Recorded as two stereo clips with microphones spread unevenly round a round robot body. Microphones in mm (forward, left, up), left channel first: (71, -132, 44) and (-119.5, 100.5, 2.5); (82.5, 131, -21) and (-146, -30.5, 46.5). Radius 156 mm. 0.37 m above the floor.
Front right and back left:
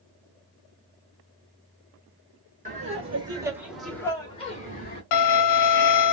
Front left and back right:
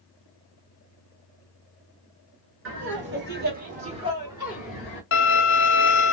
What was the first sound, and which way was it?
Laughter, 175° left.